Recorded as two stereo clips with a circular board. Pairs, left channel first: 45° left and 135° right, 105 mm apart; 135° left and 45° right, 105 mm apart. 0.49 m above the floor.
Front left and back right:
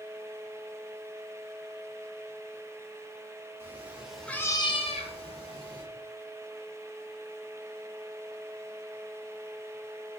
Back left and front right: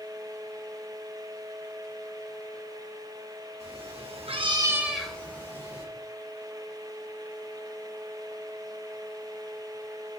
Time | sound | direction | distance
3.6 | a cat meowing | 65° right | 1.1 m